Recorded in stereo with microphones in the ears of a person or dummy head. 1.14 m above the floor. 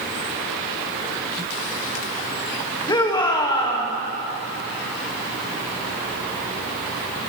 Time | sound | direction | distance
2.9 | a shout | 20° left (ahead or behind) | 1.2 m